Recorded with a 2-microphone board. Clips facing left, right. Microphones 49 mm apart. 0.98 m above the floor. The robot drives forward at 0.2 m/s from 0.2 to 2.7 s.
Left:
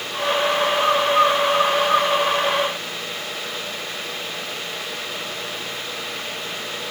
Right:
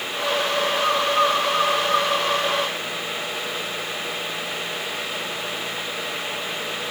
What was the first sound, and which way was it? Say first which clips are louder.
A bird: left 3 dB; 30° left (ahead or behind).